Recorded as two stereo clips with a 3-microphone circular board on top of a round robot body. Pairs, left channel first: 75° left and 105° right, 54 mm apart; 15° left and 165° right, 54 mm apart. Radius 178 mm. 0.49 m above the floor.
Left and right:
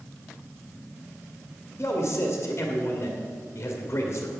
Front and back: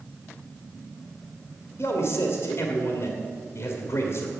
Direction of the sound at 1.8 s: 30° left.